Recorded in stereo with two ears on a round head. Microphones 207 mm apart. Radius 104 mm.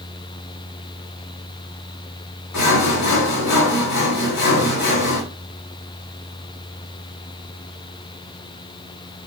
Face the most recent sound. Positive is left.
turn(degrees=80)